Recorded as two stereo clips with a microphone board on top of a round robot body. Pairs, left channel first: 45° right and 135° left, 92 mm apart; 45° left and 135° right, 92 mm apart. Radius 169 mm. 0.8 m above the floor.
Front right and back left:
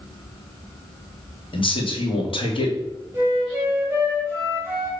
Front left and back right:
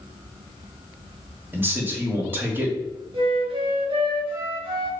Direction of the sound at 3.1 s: 155° right.